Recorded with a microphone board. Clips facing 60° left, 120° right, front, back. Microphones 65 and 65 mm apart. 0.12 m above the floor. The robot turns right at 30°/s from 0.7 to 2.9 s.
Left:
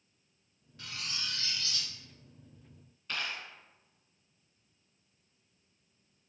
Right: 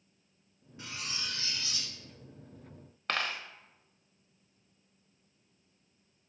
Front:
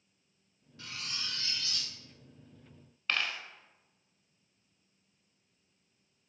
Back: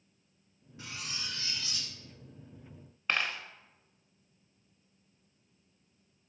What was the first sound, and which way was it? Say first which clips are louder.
Cutlery clinking: right 1 dB, even; 155° right.